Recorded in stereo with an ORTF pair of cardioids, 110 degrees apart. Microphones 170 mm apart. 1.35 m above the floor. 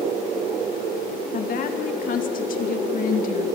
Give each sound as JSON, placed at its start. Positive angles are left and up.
{"t": 1.3, "sound": "a woman speaking", "azimuth_deg": 55, "distance_m": 2.5}